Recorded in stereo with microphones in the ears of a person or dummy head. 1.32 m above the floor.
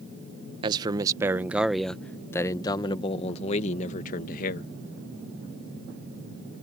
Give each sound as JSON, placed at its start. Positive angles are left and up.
{"t": 0.6, "sound": "a man speaking", "side_deg": -30}